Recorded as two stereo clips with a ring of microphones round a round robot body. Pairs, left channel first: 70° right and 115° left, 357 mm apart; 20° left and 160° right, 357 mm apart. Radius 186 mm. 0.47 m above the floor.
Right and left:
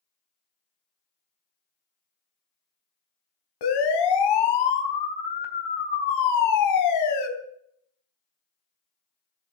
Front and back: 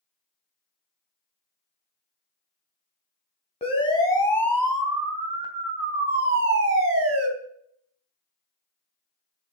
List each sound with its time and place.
3.6 s a siren: 50° right, 3.5 m; by 7.3 s 110° right, 3.5 m